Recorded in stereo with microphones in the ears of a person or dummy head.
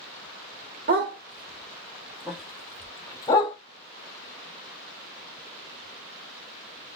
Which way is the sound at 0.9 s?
45° right (ahead or behind).